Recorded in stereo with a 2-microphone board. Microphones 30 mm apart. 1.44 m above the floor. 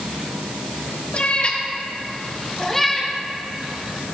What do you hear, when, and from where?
1.1 s a cat meowing: 45° left (ahead or behind), 1.7 m; by 4.0 s 30° right (ahead or behind), 1.5 m